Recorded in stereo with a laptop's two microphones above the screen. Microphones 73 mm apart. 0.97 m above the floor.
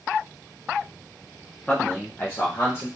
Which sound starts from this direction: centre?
A man speaking, at 1.7 s.